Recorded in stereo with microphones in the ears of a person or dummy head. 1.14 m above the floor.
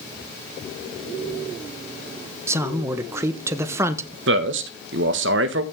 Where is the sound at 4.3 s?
65° right (ahead or behind), 1.4 m.